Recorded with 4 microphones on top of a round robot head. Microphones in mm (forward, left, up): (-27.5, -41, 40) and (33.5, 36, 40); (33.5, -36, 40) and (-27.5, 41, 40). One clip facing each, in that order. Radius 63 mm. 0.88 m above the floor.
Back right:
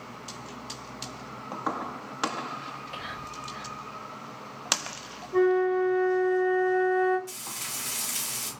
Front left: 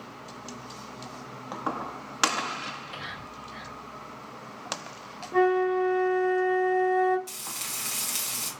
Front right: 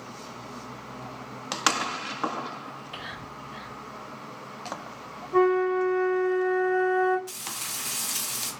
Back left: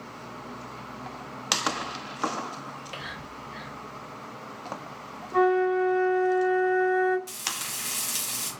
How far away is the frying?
About 1.9 m.